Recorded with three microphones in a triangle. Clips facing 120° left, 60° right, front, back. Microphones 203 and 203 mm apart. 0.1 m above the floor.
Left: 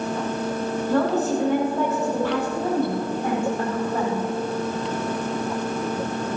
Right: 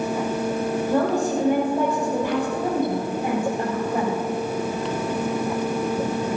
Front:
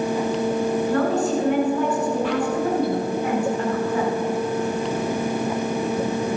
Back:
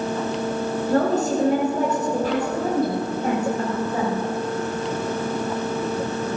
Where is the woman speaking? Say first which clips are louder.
Left 1 dB, back 5 dB; 135° right, 5 m; by 4.2 s 130° right, 8 m.